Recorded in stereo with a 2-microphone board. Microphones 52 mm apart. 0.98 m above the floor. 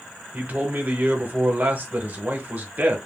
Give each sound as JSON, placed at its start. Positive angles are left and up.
{"t": 0.3, "sound": "a man speaking", "side_deg": -40, "distance_m": 0.8}